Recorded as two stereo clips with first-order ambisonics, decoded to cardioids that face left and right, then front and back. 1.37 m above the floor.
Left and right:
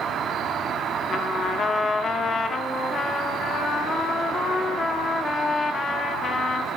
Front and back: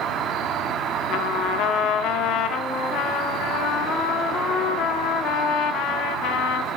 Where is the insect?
135° right, 1.2 m.